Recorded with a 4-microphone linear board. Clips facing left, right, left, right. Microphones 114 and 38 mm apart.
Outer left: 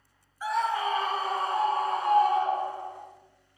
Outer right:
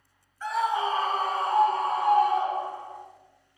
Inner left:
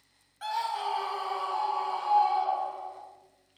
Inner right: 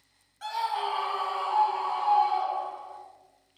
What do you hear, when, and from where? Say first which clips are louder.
0.4 s a scream: outer right 1 dB, inner right 1 dB; 10° left (ahead or behind), 0.9 m; by 3.0 s 75° right (ahead or behind), 3.5 m